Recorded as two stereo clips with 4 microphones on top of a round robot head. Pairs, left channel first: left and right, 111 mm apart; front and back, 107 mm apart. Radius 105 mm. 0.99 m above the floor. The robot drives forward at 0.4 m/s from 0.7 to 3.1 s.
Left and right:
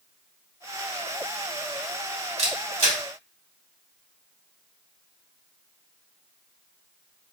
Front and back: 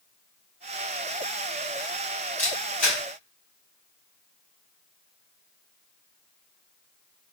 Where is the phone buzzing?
No phone buzzing in this recording.